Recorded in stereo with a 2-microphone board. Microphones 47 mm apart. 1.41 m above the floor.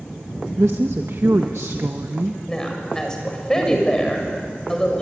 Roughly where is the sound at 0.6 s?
Right.